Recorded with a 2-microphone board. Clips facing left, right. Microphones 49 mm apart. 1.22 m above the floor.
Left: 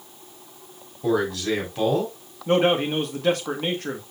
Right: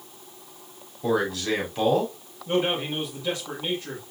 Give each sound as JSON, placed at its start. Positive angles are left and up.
{"t": 1.0, "sound": "a man speaking", "side_deg": 0, "distance_m": 4.0}
{"t": 2.5, "sound": "a man speaking", "side_deg": 65, "distance_m": 1.5}